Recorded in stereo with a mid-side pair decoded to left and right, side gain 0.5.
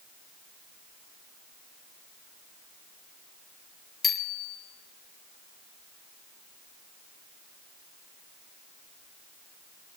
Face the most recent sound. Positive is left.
turn(degrees=35)